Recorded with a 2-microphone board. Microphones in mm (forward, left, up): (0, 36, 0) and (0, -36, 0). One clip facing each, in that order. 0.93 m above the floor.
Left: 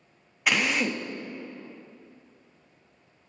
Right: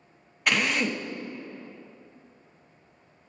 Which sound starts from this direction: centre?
A drill, at 0.5 s.